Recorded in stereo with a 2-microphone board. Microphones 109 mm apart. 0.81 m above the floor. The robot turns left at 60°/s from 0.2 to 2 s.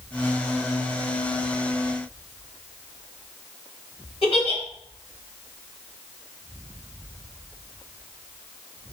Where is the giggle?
60° left (ahead or behind), 1.4 m.